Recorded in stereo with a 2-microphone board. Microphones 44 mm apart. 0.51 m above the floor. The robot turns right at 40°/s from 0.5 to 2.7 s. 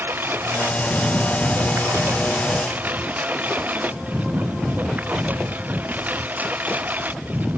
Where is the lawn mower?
125° right; by 7.6 s 40° right.